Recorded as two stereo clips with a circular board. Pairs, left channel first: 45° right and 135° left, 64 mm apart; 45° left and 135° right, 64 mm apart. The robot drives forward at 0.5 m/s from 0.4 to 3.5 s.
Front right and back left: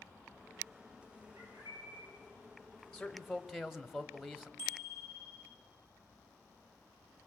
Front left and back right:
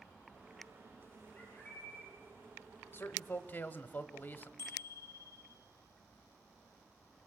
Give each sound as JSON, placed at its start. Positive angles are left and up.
{"t": 1.4, "sound": "a bird", "azimuth_deg": 110, "distance_m": 6.5}
{"t": 2.9, "sound": "a man speaking", "azimuth_deg": 30, "distance_m": 1.1}
{"t": 4.6, "sound": "a bicycle bell", "azimuth_deg": 100, "distance_m": 5.5}